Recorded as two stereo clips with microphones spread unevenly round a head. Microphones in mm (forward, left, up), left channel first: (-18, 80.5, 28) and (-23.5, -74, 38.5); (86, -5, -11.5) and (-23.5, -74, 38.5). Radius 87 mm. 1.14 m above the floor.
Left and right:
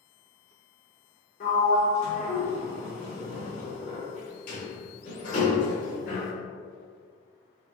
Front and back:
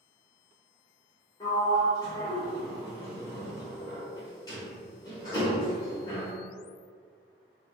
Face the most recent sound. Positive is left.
turn(degrees=115)